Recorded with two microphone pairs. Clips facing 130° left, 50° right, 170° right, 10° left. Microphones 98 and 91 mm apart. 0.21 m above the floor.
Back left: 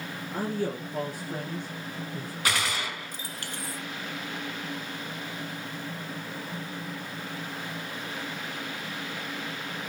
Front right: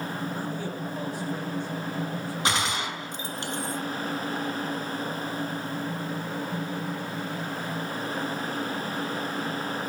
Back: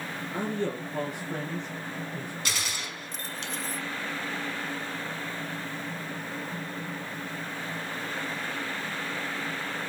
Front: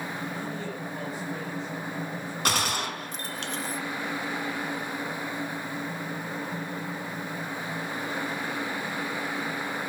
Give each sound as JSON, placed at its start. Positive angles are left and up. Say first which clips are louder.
{"t": 0.3, "sound": "a man speaking", "louder": "back left 2 dB, back 4 dB", "azimuth_deg": 165, "distance_m": 3.5}
{"t": 2.5, "sound": "a gunshot", "louder": "front right 2 dB, front 7 dB", "azimuth_deg": 10, "distance_m": 1.4}